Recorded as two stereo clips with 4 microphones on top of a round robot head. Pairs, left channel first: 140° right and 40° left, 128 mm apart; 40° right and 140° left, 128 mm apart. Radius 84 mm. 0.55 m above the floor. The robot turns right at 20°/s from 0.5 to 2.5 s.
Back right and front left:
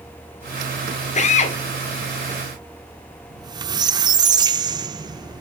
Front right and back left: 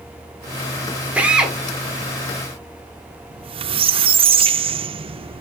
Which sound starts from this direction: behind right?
A drill, at 1.1 s.